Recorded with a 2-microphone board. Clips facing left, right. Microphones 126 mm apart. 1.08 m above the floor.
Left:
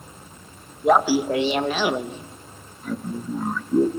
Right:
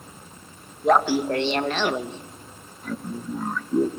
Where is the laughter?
5° left (ahead or behind), 1.2 m.